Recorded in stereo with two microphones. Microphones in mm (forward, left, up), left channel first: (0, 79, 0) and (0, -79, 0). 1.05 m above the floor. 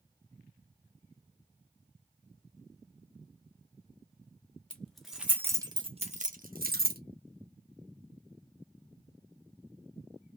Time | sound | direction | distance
4.7 | keys jangling | 5° left (ahead or behind) | 1.4 m